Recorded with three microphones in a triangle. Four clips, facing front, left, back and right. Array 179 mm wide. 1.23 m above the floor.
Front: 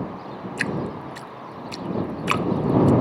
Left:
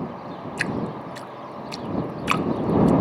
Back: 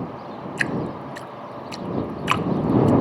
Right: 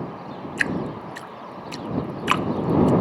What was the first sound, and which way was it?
Dripping, 120° right.